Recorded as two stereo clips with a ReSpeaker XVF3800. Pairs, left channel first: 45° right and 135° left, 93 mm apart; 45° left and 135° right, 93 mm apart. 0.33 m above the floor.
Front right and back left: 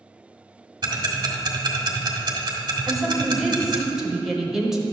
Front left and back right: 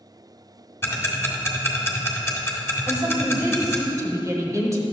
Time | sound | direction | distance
0.8 | ticking | 105° left | 1.1 m
2.9 | a woman speaking | 140° right | 1.1 m